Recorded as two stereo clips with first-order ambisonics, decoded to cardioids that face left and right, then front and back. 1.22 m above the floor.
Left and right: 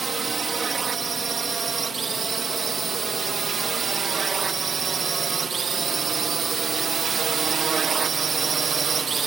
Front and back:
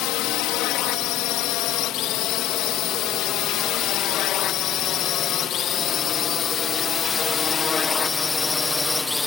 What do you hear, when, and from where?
0.0 s a drone: 20° right; by 9.3 s 70° right